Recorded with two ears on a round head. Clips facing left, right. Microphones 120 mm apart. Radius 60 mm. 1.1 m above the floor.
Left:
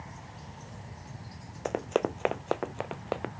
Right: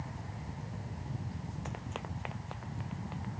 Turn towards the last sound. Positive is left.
turn(degrees=75)  # may be behind; listen again after turning